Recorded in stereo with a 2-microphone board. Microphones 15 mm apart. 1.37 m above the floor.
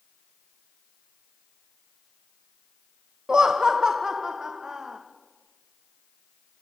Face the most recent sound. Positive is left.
turn(degrees=-35)  # may be behind; listen again after turning